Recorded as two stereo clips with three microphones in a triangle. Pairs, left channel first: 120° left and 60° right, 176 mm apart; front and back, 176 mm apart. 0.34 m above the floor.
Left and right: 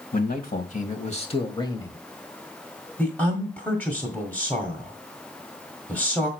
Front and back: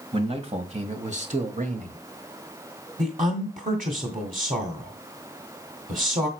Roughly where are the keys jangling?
No keys jangling in this recording.